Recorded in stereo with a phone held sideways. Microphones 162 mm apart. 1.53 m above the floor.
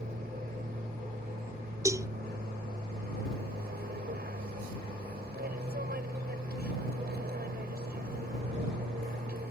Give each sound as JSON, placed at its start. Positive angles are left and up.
{"t": 0.0, "sound": "an aircraft", "side_deg": -70}
{"t": 1.9, "sound": "a cowbell", "side_deg": -20}